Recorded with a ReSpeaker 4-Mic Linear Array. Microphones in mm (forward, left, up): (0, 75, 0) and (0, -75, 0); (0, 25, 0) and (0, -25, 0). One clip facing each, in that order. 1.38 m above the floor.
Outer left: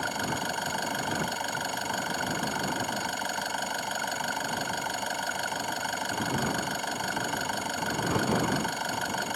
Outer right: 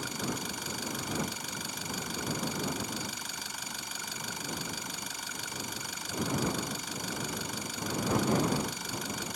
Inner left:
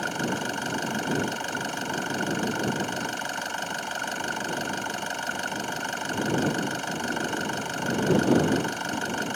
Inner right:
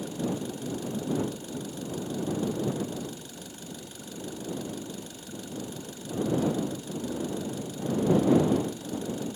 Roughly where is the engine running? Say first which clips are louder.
Outer left 4 dB, inner left 4 dB; left.